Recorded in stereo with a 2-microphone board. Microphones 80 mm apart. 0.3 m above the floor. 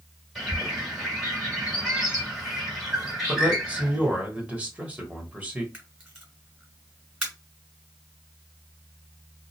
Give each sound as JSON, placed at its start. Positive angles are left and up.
{"t": 0.3, "sound": "a bird", "side_deg": -5, "distance_m": 1.5}
{"t": 3.3, "sound": "a man speaking", "side_deg": -20, "distance_m": 0.9}
{"t": 5.7, "sound": "a camera shutter", "side_deg": -15, "distance_m": 1.8}